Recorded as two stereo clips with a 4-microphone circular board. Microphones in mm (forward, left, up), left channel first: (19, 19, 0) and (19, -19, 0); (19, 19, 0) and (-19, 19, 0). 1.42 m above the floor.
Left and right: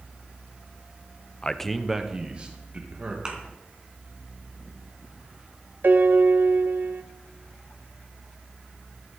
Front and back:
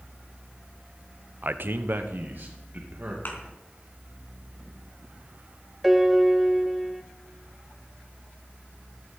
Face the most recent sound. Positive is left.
turn(degrees=-95)